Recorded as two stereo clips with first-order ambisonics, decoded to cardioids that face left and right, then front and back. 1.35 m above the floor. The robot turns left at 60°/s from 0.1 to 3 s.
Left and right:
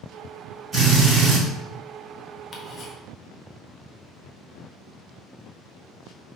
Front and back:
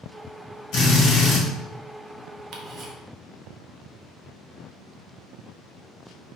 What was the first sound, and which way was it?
A drill, 25° right.